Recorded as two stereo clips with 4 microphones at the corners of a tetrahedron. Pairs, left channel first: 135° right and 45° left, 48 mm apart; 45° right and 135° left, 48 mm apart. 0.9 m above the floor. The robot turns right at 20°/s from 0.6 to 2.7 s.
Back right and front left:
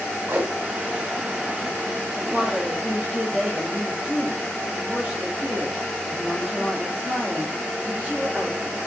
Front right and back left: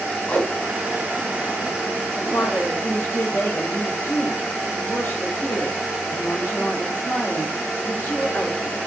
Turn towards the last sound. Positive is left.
turn(degrees=-20)